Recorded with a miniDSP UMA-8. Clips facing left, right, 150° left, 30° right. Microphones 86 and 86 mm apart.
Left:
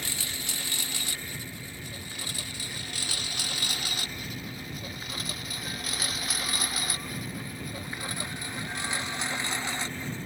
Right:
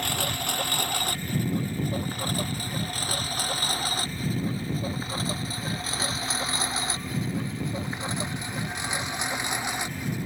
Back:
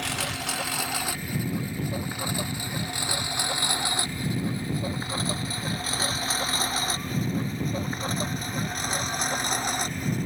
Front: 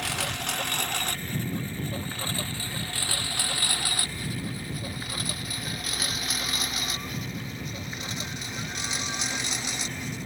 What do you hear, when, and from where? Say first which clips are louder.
0.0 s a lawn mower: right 9 dB, back 1 dB; 120° right; by 10.3 s 165° right